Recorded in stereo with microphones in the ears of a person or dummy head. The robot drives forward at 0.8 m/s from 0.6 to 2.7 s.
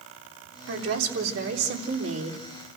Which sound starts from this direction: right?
A woman speaking, at 0.7 s.